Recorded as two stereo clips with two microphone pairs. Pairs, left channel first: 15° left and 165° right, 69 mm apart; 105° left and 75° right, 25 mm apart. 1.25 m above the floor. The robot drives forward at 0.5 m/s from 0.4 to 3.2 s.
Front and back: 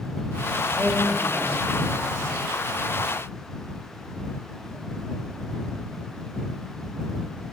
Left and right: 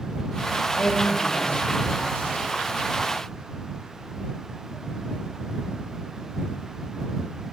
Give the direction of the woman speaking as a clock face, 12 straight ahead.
8 o'clock.